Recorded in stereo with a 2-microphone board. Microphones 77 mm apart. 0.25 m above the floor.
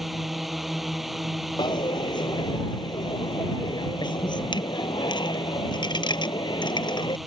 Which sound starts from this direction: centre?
A drone, at 0.0 s.